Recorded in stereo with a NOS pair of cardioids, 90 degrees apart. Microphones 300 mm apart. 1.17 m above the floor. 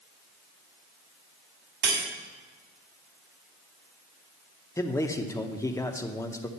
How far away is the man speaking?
About 0.8 m.